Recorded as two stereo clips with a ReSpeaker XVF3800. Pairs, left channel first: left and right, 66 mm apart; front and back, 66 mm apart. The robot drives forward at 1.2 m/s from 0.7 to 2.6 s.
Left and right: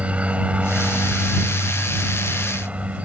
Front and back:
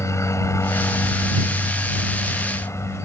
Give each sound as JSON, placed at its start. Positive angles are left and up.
{"t": 0.0, "sound": "a helicopter", "azimuth_deg": -25}